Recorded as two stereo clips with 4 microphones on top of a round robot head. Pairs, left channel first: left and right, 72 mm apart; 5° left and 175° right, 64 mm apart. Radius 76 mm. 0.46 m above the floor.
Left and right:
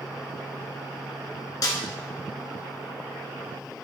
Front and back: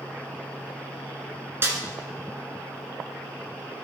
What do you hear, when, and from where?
1.6 s a snare drum: 130° left, 1.9 m